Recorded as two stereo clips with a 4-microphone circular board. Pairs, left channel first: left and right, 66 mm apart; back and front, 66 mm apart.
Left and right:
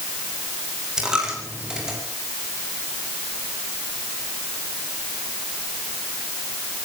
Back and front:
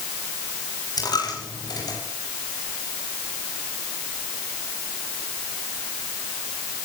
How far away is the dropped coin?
About 9.5 m.